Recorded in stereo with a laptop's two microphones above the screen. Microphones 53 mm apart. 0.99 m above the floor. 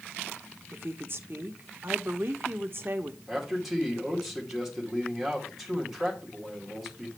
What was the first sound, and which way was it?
A woman speaking, 45° right (ahead or behind).